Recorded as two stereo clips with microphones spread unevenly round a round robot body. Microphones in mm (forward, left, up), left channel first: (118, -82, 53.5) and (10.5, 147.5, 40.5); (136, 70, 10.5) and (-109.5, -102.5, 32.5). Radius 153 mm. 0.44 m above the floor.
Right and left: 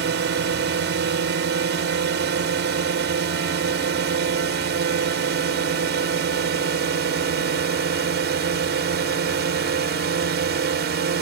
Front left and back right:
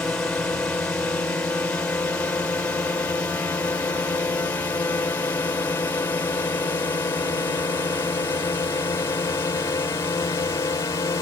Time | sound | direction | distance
0.0 | a drone | 120° left | ?